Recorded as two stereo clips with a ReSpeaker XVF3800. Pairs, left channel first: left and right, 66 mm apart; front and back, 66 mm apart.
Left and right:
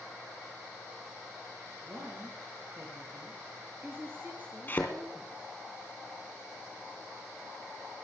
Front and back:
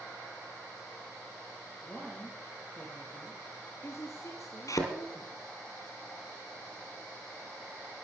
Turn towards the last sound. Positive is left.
turn(degrees=30)